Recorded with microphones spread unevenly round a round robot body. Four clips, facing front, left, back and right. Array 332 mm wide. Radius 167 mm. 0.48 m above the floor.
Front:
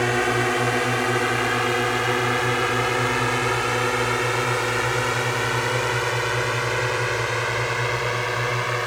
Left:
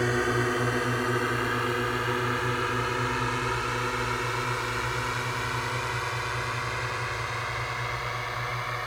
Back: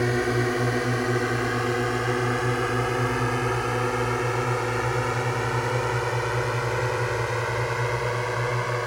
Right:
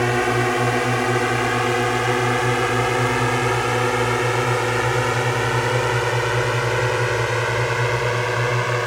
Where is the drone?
105° right; by 8.9 s 90° right.